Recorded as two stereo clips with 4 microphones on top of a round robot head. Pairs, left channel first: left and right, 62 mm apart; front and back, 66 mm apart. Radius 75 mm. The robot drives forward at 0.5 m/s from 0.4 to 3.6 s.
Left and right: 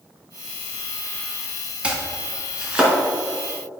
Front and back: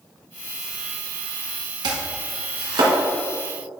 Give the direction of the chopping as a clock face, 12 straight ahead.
5 o'clock.